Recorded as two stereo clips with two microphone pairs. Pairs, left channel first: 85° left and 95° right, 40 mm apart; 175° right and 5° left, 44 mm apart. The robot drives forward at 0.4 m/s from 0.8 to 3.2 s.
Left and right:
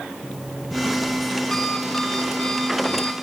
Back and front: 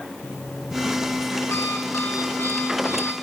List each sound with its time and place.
0.2 s an alarm clock: 165° left, 1.8 m; by 3.1 s 170° left, 2.5 m